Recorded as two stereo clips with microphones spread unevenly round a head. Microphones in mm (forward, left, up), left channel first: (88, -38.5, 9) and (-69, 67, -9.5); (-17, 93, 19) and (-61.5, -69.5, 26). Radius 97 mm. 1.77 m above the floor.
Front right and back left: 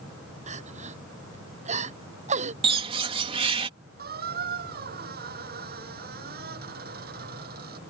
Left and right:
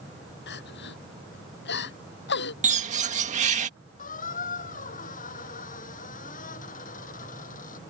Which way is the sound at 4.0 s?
110° left.